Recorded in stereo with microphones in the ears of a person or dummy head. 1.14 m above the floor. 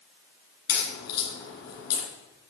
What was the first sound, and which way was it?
A crack, 55° left (ahead or behind).